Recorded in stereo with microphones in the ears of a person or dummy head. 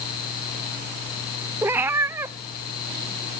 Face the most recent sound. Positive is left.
turn(degrees=-15)  # may be behind; listen again after turning